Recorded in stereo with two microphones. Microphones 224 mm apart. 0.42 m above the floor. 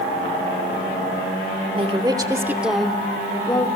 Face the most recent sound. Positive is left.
turn(degrees=20)  # may be behind; listen again after turning